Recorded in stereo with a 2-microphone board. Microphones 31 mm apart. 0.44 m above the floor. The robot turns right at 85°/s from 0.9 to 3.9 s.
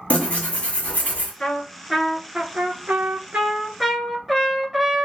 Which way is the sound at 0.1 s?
55° left.